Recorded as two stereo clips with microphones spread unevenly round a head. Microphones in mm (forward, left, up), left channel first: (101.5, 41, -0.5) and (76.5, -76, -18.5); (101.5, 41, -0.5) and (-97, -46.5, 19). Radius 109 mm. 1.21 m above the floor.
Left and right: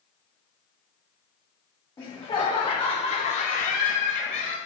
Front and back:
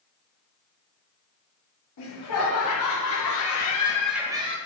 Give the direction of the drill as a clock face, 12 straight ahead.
No drill in this recording.